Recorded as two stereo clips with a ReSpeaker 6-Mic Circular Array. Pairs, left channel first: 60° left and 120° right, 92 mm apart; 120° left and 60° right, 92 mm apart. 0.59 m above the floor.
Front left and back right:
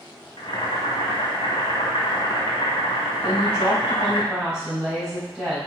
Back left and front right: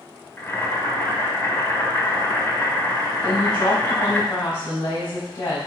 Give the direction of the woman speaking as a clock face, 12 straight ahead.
7 o'clock.